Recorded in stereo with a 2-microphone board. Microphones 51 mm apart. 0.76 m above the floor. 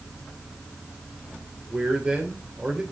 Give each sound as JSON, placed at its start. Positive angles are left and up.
{"t": 1.7, "sound": "a man speaking", "side_deg": -35, "distance_m": 3.0}